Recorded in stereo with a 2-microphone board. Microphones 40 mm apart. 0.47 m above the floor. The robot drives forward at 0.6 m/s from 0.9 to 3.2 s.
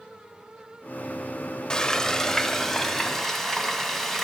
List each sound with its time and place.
1.7 s frying: 20° left (ahead or behind), 0.6 m; by 4.2 s 10° left (ahead or behind), 1.5 m